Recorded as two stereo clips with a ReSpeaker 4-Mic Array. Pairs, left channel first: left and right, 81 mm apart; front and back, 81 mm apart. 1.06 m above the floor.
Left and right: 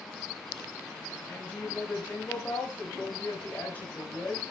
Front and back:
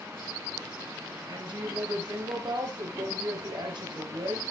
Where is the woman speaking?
160° left, 5.5 m.